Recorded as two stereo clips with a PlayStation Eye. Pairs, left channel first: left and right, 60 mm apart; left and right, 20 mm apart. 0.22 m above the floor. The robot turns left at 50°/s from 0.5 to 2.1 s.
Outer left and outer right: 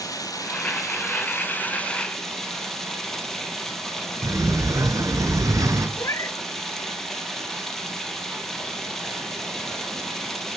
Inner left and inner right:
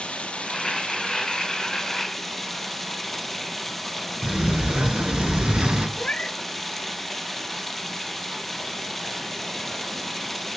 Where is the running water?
85° left, 3 m; by 10.6 s 5° left, 3 m.